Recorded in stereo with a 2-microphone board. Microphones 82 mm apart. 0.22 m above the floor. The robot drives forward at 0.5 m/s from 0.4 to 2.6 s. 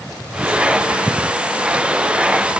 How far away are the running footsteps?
No running footsteps in this recording.